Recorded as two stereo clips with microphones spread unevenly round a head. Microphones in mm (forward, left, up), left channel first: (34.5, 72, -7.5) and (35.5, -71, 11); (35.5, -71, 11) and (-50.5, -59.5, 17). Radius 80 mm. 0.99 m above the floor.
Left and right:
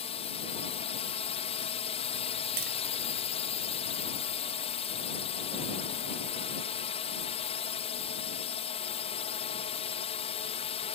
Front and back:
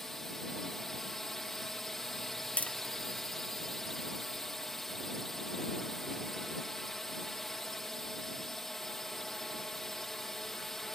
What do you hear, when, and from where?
0.0 s a drone: 80° left
2.6 s tapping: 80° right